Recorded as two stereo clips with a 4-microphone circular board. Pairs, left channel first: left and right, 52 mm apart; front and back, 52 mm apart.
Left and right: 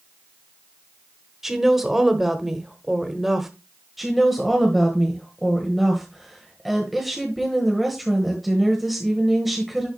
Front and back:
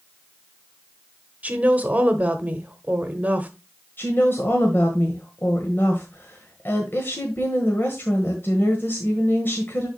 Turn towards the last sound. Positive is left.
turn(degrees=0)